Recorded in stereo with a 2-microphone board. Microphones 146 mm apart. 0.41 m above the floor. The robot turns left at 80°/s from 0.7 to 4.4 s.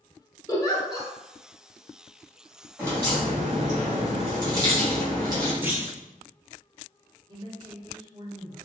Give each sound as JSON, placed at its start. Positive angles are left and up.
{"t": 0.5, "sound": "a giggle", "side_deg": 25, "distance_m": 0.9}
{"t": 2.8, "sound": "a crack", "azimuth_deg": -20, "distance_m": 1.8}
{"t": 5.6, "sound": "a clunk", "side_deg": -15, "distance_m": 0.8}
{"t": 7.3, "sound": "a woman speaking", "side_deg": -30, "distance_m": 1.0}